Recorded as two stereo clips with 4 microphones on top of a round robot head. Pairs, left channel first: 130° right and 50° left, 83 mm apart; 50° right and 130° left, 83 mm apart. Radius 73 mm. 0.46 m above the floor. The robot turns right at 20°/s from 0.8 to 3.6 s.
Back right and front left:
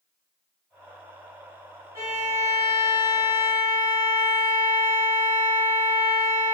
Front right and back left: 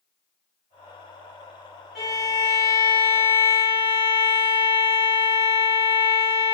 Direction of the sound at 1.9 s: 50° left.